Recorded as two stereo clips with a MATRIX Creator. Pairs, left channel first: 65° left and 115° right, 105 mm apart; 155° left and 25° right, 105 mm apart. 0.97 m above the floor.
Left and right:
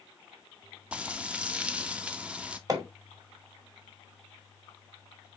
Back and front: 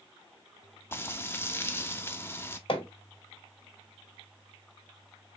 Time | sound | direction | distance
0.9 | frying | straight behind | 0.6 m
2.7 | hammering | 165° right | 1.9 m